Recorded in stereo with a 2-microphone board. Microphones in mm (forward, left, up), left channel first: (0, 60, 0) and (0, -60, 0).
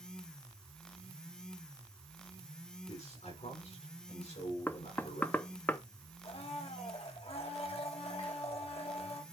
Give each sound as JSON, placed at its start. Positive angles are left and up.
{"t": 2.9, "sound": "a man speaking", "side_deg": 85, "distance_m": 7.0}
{"t": 4.7, "sound": "knocking", "side_deg": 15, "distance_m": 0.6}
{"t": 6.2, "sound": "a blender", "side_deg": 60, "distance_m": 1.4}